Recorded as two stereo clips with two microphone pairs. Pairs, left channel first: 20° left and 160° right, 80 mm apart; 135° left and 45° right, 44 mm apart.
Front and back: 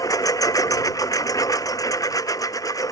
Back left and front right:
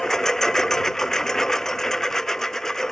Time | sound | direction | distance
0.0 | a lawn mower | 60° left | ?